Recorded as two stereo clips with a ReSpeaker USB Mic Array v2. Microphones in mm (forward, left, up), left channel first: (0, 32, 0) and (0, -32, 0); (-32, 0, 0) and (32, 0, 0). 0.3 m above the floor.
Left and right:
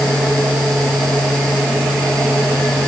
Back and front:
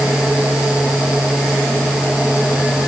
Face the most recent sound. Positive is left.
No sound to turn to.